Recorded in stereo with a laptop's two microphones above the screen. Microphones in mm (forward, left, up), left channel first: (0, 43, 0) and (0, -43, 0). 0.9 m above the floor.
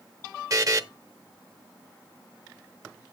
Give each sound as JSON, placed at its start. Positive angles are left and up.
{"t": 0.5, "sound": "a buzzer", "side_deg": -40, "distance_m": 0.7}